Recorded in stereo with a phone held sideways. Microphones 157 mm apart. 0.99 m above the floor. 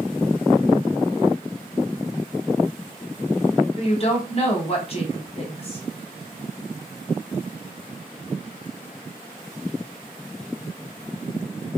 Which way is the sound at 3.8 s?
40° left (ahead or behind).